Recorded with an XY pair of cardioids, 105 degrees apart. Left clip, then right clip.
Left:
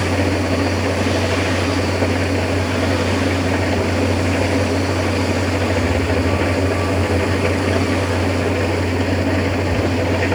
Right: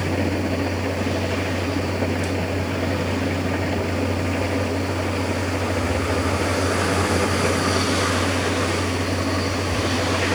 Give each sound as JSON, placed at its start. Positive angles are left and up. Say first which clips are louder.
{"t": 0.0, "sound": "an engine running", "louder": "left 5 dB", "azimuth_deg": 35}